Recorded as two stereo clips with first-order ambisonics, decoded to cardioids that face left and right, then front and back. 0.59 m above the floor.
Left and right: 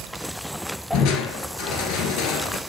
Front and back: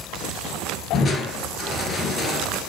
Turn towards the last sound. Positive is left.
turn(degrees=70)